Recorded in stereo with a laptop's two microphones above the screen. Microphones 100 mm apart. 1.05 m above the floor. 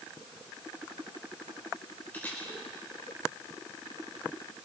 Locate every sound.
2.1 s a camera shutter: 20° left (ahead or behind), 4.5 m